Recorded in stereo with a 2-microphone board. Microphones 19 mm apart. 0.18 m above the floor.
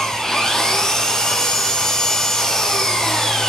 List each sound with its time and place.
0.0 s an engine running: 30° left (ahead or behind), 5 m